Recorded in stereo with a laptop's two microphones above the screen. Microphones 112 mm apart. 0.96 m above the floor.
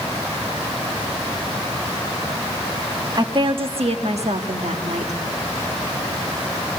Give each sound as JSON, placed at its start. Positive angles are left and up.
{"t": 3.1, "sound": "a woman speaking", "side_deg": -40, "distance_m": 1.2}